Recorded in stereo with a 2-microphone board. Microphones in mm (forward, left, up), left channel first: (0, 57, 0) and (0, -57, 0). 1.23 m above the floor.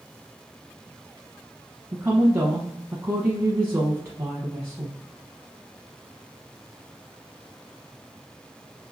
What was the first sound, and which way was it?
A woman speaking, 25° right (ahead or behind).